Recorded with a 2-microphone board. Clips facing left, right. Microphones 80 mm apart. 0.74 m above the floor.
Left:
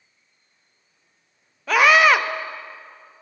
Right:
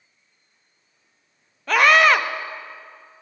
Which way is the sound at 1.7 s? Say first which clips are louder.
Even; 5° left (ahead or behind).